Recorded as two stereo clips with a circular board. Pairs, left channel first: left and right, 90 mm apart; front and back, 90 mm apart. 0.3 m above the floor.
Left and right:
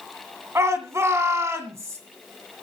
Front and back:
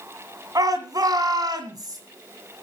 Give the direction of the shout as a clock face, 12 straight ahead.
5 o'clock.